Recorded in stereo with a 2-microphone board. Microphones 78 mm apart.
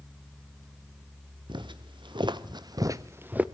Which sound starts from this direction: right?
Footsteps, at 1.5 s.